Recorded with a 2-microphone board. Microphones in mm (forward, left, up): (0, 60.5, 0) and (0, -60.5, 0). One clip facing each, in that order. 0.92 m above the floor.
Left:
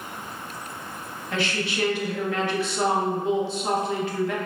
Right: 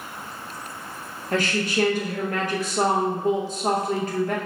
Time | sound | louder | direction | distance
1.3 | a woman speaking | right 4 dB | 45° right (ahead or behind) | 0.7 m